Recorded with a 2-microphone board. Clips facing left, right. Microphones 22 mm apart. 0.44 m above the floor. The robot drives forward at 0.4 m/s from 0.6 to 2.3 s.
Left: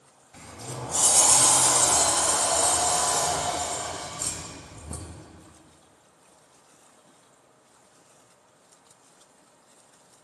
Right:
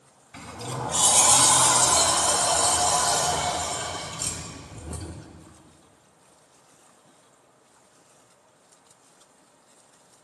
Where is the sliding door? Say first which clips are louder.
Right 5 dB; 50° right (ahead or behind), 0.5 m; by 5.3 s 40° right (ahead or behind), 0.6 m.